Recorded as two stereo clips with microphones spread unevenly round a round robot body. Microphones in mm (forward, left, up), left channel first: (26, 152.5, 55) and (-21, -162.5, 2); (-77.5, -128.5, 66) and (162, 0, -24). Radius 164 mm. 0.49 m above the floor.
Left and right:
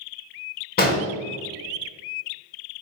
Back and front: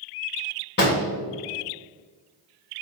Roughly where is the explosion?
Behind left.